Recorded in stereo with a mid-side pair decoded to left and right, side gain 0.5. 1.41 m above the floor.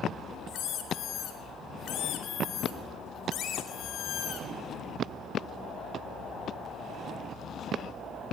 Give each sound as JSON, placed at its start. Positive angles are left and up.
{"t": 0.5, "sound": "a squeak", "azimuth_deg": 65, "distance_m": 4.0}